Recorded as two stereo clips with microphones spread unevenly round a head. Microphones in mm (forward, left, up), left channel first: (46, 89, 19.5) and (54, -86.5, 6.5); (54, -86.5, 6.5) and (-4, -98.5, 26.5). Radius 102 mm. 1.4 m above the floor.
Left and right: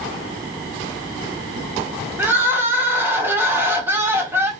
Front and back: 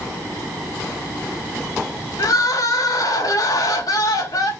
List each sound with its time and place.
2.2 s crying: 10° right, 1.5 m